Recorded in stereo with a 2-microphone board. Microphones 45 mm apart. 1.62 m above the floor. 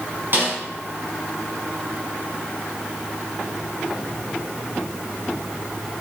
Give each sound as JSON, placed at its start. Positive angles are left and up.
{"t": 0.3, "sound": "a snare drum", "side_deg": -45, "distance_m": 4.5}